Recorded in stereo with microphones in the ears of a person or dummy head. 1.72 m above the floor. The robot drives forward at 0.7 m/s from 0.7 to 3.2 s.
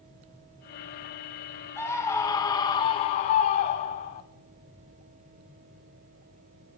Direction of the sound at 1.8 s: 15° left (ahead or behind).